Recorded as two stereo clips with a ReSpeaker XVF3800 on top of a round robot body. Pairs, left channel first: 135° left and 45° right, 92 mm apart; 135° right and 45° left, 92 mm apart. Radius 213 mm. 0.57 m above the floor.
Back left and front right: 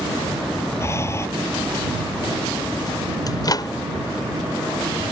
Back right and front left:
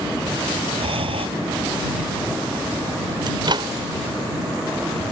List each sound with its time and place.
0.8 s breathing: 70° left
3.3 s a microwave: 85° left